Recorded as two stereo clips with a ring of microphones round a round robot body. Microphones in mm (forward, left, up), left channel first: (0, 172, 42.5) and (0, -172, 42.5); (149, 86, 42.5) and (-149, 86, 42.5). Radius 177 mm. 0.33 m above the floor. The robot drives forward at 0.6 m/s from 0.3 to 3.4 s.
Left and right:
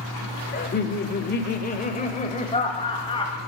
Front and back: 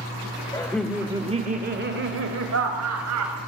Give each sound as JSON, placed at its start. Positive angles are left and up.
{"t": 0.5, "sound": "laughter", "azimuth_deg": 65, "distance_m": 0.9}